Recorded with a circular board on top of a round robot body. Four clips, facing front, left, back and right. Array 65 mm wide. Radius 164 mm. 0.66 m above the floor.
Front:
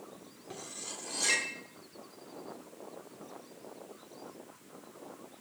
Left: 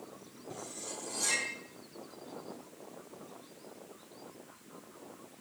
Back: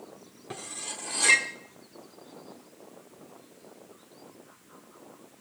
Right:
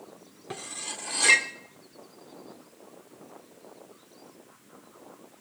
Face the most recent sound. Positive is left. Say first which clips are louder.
# right 5 dB, back 5 dB
turn(degrees=-115)